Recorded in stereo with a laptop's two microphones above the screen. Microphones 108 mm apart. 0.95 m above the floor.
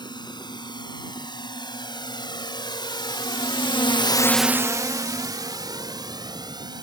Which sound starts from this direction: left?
A drone, at 0.0 s.